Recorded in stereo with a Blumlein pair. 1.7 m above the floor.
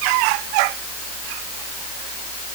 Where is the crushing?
No crushing in this recording.